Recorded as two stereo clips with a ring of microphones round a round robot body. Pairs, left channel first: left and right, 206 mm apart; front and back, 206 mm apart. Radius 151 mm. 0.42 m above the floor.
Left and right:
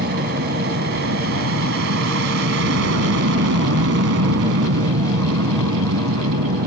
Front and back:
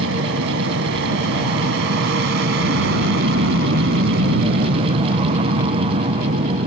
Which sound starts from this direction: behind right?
An aircraft, at 0.0 s.